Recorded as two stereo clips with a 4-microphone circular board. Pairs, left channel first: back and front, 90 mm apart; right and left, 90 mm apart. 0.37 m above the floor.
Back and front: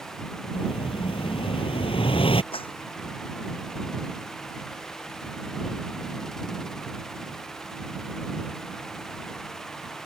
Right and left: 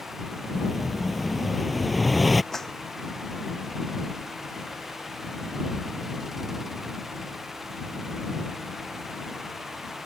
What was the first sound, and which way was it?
An explosion, straight behind.